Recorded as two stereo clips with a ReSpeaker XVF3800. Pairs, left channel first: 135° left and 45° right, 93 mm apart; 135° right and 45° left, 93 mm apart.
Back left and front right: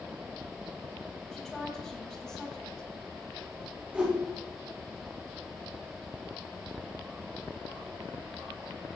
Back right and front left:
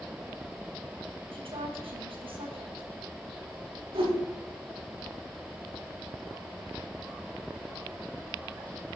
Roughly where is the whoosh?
Ahead left.